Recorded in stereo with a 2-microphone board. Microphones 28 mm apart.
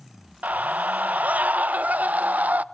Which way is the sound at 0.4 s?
80° right.